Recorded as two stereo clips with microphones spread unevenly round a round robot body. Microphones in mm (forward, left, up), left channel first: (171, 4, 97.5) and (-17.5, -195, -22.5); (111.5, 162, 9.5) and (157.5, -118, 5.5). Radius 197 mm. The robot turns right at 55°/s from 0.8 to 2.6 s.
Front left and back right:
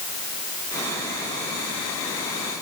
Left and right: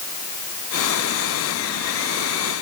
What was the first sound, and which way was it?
Only background noise.